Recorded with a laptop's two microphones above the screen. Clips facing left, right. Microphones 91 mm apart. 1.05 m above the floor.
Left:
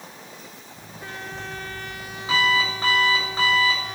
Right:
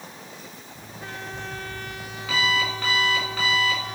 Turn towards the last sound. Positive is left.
turn(degrees=30)  # may be behind; listen again after turning